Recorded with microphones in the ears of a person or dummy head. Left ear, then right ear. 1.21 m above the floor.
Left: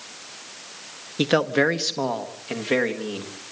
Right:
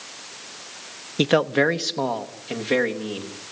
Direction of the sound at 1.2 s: 20° right (ahead or behind).